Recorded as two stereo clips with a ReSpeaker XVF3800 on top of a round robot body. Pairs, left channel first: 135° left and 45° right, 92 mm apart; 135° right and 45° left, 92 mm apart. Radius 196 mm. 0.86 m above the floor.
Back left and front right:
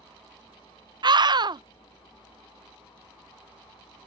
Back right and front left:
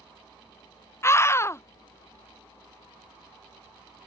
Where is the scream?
75° right.